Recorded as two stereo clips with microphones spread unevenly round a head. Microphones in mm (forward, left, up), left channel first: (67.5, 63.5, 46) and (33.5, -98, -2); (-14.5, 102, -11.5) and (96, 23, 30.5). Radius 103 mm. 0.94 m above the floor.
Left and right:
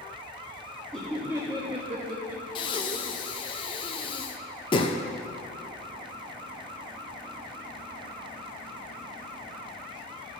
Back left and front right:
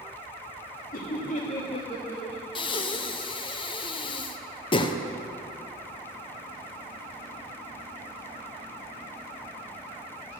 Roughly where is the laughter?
Behind.